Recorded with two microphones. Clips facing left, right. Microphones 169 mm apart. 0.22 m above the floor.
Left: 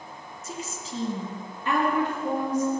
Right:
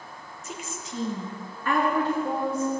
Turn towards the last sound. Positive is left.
turn(degrees=15)  # may be behind; listen again after turning